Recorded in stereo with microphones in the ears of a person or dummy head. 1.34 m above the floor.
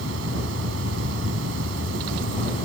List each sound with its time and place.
0.0 s an insect: 70° right (ahead or behind)